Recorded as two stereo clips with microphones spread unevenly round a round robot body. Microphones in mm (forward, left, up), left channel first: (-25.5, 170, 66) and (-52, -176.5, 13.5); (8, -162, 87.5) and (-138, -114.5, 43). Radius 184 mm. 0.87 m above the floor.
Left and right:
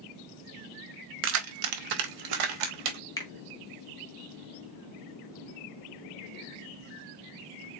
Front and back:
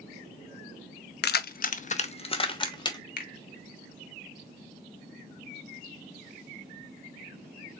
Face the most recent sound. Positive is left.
turn(degrees=0)